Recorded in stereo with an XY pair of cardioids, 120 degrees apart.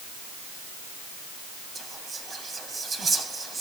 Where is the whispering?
30° right, 3 m.